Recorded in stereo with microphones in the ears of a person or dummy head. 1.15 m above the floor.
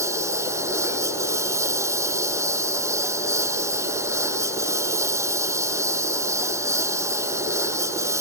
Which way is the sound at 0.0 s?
20° right (ahead or behind).